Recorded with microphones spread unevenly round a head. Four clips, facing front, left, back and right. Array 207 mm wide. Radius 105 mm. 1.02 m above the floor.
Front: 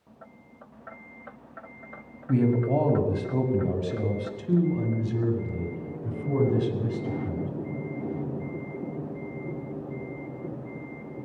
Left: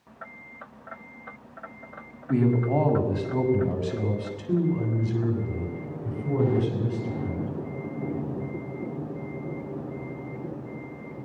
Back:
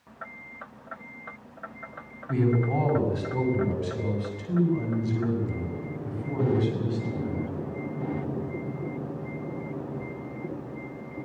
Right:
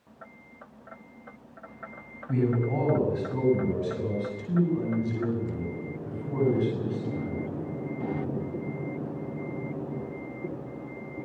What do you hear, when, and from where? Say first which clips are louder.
2.3 s a man speaking: left 4 dB, front 2 dB; straight ahead, 6.5 m; by 7.5 s 25° left, 8.5 m